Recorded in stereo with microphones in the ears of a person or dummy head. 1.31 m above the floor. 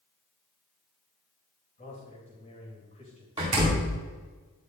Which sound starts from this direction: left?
A man speaking, at 1.8 s.